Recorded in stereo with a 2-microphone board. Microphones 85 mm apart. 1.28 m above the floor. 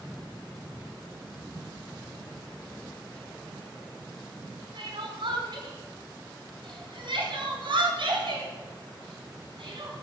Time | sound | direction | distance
4.8 | crying | 80° right | 5 m